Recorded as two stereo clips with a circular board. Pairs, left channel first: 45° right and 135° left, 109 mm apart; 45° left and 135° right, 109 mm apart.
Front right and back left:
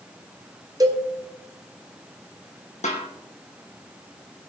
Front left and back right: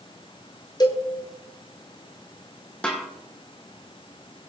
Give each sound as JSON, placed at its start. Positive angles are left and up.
{"t": 0.8, "sound": "a cowbell", "azimuth_deg": 85, "distance_m": 1.6}
{"t": 2.8, "sound": "a snare drum", "azimuth_deg": -35, "distance_m": 3.5}